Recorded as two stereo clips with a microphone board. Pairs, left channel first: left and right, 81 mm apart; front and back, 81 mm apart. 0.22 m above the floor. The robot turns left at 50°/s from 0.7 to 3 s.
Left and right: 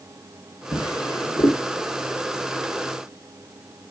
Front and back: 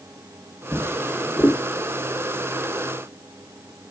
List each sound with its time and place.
0.7 s a drawer: 125° left, 4 m; by 1.6 s 80° left, 4 m